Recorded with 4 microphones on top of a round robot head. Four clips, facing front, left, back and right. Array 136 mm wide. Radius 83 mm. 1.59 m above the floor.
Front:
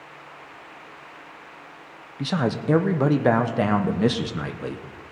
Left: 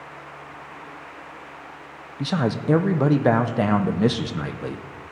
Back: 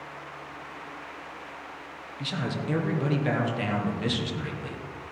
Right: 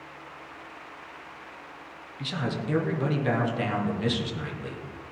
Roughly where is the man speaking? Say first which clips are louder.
Left 8 dB, front 8 dB; ahead left.